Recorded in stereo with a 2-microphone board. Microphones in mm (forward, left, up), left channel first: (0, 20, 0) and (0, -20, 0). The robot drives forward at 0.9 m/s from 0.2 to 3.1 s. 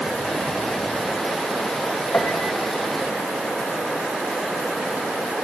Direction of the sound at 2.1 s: 55° left (ahead or behind).